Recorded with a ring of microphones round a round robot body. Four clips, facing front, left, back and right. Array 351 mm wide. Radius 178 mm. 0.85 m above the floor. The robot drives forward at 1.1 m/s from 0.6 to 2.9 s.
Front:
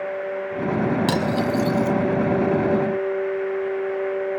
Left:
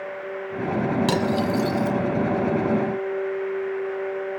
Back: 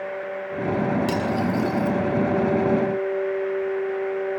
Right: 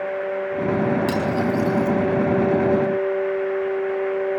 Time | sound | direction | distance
1.1 | cutlery clinking | 40° left | 4.5 m